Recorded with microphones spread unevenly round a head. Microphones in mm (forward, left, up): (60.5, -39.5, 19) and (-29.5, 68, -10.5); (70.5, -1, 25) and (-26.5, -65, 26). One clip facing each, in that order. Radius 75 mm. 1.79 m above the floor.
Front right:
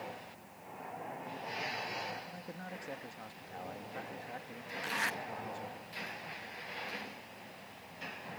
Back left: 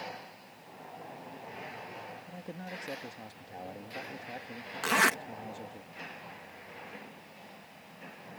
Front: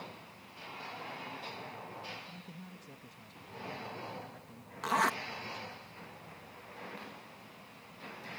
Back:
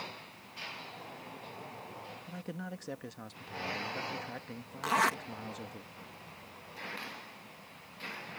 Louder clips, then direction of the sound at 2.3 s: Back left 3 dB, back 8 dB; 155° right.